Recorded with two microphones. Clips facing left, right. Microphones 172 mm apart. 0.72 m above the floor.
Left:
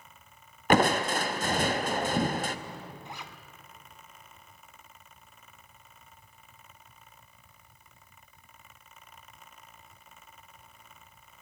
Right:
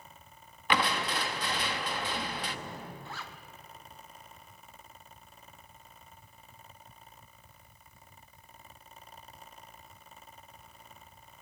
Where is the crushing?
45° left (ahead or behind), 0.5 m.